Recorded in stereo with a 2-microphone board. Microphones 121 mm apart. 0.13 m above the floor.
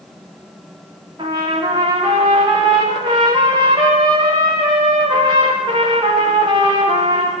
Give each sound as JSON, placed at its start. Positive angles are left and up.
{"t": 1.2, "sound": "a trumpet", "side_deg": -40, "distance_m": 9.5}